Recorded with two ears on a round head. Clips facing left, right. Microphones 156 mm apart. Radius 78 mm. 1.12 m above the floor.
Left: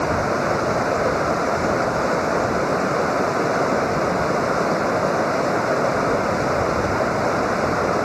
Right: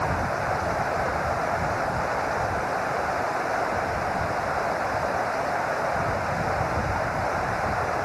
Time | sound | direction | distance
0.0 | running water | 55° left (ahead or behind) | ?